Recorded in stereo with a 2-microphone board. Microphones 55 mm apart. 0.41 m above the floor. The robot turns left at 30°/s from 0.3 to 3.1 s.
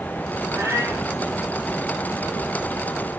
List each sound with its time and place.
0.5 s a cat meowing: 70° right (ahead or behind), 3 m; by 1.1 s 55° right (ahead or behind), 3 m